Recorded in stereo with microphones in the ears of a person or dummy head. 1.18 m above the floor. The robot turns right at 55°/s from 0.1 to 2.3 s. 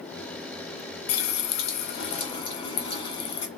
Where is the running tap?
90° left, 0.7 m; by 3.5 s 155° left, 0.7 m.